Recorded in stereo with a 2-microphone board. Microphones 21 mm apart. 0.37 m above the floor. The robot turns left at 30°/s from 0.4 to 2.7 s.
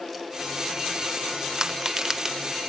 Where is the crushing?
30° right (ahead or behind), 0.9 m; by 2.4 s 20° right (ahead or behind), 0.9 m.